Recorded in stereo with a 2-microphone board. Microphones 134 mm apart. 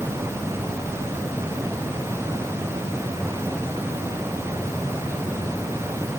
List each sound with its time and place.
Only background noise.